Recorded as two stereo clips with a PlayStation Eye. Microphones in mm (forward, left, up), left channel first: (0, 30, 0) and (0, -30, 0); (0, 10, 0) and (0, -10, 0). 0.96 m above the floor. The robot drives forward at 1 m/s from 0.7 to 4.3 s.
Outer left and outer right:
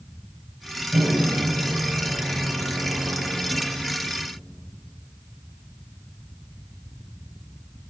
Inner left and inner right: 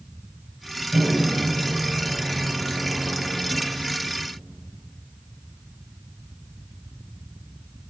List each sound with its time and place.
0.9 s a microwave: 45° right (ahead or behind), 4.5 m; by 3.8 s 80° right, 3 m